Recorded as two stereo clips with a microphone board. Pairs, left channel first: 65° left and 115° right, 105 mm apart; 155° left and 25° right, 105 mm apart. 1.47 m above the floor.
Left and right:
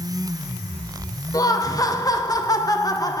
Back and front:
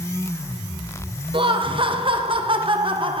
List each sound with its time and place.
1.3 s laughter: 10° left, 1.1 m